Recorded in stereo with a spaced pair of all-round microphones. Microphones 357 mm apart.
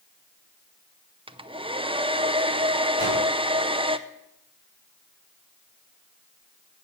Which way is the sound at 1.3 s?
15° right (ahead or behind).